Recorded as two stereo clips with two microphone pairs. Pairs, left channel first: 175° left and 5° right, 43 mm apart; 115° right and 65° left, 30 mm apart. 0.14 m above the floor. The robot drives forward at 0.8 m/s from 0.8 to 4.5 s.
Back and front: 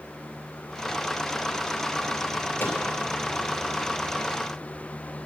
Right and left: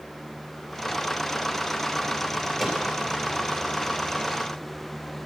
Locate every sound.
2.6 s a microwave: 165° left, 2.5 m